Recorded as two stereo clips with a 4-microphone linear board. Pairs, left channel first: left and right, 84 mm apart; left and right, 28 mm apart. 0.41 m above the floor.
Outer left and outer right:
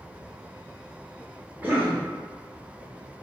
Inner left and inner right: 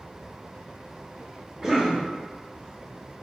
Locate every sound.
1.6 s a cough: 20° right (ahead or behind), 0.8 m